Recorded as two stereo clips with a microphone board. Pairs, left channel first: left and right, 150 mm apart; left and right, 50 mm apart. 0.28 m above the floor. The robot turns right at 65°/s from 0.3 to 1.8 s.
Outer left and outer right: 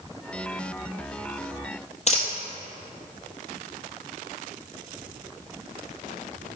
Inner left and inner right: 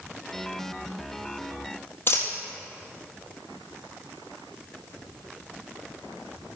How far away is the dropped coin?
About 1.6 m.